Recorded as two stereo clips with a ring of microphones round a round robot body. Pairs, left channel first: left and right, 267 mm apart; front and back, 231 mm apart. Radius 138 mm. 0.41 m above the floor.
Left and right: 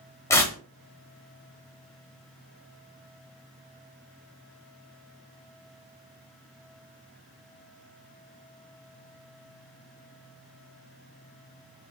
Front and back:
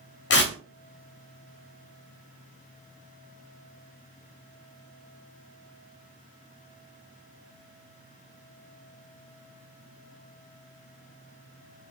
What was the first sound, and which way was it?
Tearing paper, 15° left.